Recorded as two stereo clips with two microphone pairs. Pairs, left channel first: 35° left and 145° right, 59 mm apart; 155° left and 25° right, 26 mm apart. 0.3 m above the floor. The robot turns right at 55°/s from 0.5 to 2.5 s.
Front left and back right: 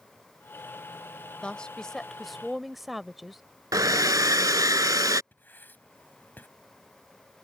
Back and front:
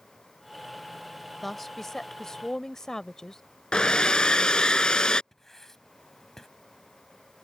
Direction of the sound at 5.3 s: 85° left.